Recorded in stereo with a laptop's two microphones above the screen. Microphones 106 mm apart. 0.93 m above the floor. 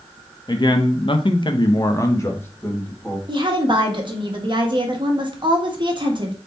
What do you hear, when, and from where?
0.5 s a man speaking: 40° left (ahead or behind), 0.7 m; by 3.2 s 15° left (ahead or behind), 1.3 m
3.3 s a woman speaking: 45° right (ahead or behind), 0.9 m